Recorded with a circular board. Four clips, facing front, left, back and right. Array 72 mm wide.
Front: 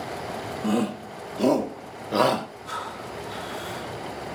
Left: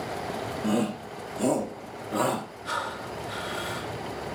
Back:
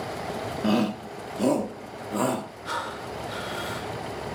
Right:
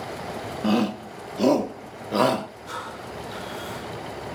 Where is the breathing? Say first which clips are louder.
Left 3 dB, back 2 dB; 145° left, 2.5 m.